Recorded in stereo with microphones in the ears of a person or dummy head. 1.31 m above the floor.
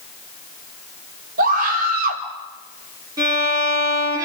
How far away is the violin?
About 9.5 m.